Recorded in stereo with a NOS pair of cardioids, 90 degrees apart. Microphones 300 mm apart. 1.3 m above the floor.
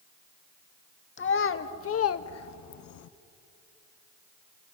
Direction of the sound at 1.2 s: 40° left.